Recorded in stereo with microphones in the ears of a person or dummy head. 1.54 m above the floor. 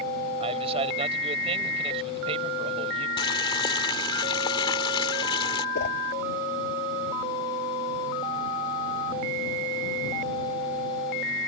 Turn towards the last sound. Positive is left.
turn(degrees=55)  # may be behind; listen again after turning